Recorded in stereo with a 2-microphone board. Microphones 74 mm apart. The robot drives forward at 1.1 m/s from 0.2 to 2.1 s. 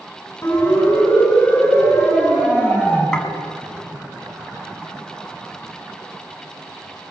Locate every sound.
0.4 s a siren: 35° left (ahead or behind), 8 m; by 3.0 s 15° left (ahead or behind), 8.5 m
3.1 s dishes clattering: 10° left (ahead or behind), 4.5 m